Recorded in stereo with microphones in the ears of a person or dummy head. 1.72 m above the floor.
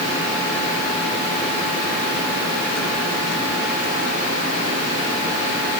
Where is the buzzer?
No buzzer in this recording.